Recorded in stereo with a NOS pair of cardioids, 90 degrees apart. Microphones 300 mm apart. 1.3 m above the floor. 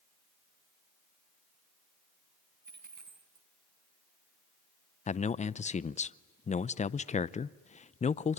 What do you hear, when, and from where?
2.6 s a dropped coin: 30° right, 4.5 m
5.1 s a man speaking: 20° left, 0.6 m